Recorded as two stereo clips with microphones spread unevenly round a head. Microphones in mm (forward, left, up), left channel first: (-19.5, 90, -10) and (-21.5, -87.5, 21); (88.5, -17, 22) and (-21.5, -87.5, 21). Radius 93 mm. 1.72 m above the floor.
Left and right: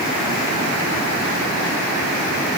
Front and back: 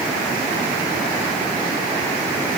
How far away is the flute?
No flute in this recording.